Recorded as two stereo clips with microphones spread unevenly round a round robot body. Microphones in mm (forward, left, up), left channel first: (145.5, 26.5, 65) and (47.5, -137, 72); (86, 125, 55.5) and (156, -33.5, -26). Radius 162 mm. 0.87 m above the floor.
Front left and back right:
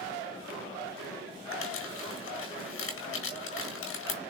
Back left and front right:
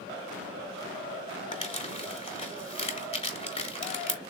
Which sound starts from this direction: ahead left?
Crumpling, at 1.5 s.